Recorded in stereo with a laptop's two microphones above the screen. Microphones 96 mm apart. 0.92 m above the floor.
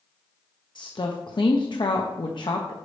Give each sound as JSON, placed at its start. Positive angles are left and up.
{"t": 0.8, "sound": "a woman speaking", "side_deg": 55, "distance_m": 0.7}